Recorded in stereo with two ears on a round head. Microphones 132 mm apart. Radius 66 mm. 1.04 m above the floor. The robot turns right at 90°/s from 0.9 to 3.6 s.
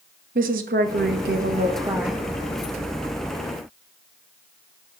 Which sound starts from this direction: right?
A woman speaking, at 0.3 s.